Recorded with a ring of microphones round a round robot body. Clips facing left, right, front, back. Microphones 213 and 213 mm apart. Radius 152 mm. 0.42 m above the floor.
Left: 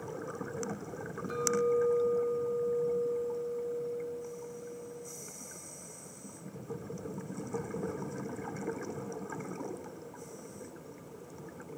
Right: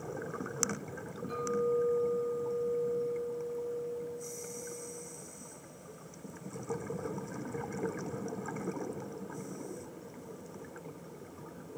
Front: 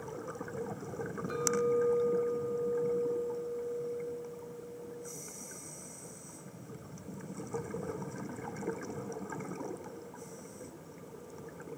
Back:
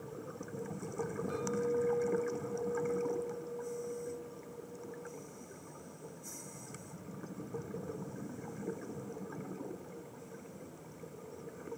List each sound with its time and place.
1.3 s a clink: 55° left, 8 m